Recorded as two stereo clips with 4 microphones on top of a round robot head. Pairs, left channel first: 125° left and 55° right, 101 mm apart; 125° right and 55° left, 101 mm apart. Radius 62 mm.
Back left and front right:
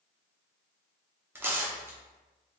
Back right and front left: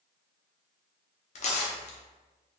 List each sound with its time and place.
1.4 s tearing paper: 125° right, 0.8 m